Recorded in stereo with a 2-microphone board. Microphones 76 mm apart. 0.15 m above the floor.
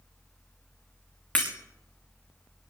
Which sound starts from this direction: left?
Breaking glass, at 1.4 s.